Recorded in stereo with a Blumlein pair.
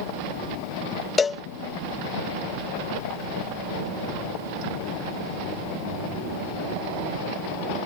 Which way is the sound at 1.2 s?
15° left.